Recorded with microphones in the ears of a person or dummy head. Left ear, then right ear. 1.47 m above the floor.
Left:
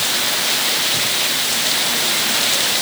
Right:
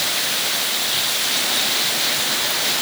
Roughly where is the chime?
No chime in this recording.